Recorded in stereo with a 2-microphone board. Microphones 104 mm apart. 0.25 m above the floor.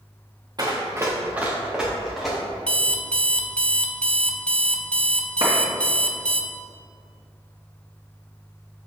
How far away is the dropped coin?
No dropped coin in this recording.